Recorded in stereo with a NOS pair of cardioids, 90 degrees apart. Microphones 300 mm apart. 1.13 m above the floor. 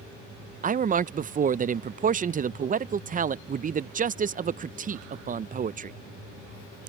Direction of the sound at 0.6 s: 30° right.